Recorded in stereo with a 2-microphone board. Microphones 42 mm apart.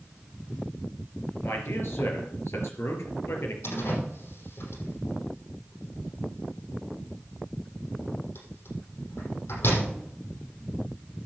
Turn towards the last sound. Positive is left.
turn(degrees=65)  # may be behind; listen again after turning